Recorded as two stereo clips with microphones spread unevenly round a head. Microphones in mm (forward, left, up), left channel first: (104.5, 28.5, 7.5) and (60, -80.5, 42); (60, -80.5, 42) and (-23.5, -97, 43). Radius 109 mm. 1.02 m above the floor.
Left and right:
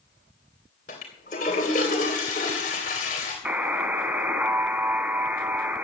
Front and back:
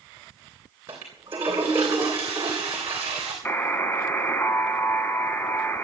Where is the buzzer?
55° right, 1.4 m.